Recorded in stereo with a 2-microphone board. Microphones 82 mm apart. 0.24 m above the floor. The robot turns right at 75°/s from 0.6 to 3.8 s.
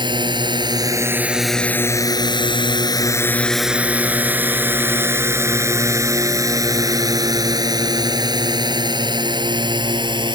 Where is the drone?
70° right (ahead or behind).